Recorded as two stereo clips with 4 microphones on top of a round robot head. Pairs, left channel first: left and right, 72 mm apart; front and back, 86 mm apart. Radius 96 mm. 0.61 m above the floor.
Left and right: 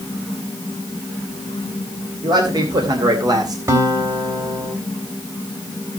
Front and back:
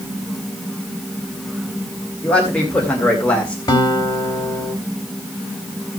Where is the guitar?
45° right, 3 m.